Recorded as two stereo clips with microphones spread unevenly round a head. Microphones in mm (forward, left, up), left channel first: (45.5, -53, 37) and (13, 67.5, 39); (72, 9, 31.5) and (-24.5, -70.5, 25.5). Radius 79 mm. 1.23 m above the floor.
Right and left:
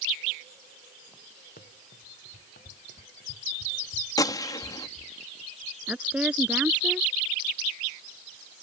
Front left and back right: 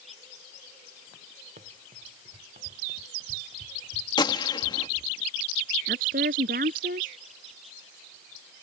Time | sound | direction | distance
1.6 | running footsteps | 110° right | ?
4.2 | a gunshot | 15° right | ?
5.9 | a woman speaking | 175° right | ?